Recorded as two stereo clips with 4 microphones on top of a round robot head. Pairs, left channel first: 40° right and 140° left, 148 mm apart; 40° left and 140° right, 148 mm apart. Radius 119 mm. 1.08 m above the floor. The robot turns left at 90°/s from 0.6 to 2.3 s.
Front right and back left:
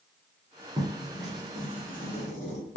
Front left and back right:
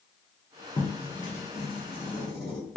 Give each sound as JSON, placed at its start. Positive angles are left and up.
{"t": 0.8, "sound": "writing", "azimuth_deg": 90, "distance_m": 0.6}